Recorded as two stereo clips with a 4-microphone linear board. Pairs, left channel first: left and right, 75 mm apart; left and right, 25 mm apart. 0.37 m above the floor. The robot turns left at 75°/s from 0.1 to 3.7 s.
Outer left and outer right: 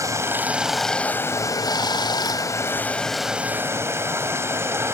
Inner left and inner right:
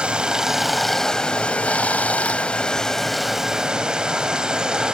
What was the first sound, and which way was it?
Running water, 130° right.